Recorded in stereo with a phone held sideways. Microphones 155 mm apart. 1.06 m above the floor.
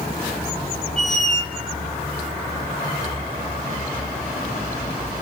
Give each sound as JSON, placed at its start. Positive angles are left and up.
{"t": 1.0, "sound": "a squeak", "side_deg": -45, "distance_m": 1.3}